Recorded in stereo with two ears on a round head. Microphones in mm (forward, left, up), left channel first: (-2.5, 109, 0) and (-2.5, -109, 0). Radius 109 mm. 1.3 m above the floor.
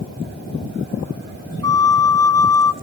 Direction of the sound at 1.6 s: 15° left (ahead or behind).